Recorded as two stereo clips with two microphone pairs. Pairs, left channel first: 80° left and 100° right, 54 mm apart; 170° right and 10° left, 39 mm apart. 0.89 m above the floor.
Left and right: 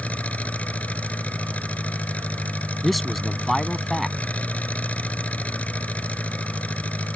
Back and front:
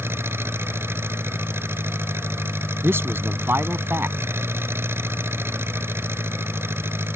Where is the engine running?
15° left.